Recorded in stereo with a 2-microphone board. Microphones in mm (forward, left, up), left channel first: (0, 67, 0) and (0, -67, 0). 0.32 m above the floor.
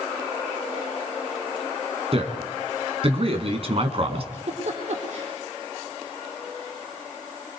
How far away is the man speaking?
About 3.5 m.